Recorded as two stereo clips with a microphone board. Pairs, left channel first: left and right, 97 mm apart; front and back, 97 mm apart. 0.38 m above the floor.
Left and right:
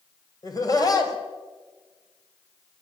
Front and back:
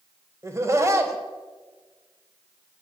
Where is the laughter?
125° left, 1.9 m.